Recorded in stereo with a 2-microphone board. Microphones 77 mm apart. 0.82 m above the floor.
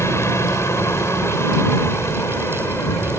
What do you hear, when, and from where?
0.0 s a helicopter: 35° left (ahead or behind)